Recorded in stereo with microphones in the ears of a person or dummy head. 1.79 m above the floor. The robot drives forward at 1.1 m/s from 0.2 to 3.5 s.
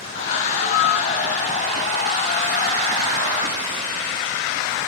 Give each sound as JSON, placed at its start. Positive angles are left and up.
{"t": 0.6, "sound": "a flute", "side_deg": 60}